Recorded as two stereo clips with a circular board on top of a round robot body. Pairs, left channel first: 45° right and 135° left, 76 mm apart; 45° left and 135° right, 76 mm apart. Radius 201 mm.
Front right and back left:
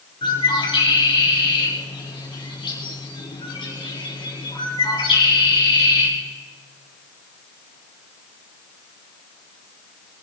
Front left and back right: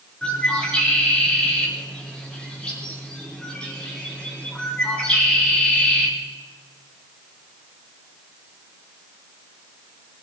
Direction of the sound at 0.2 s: 35° right.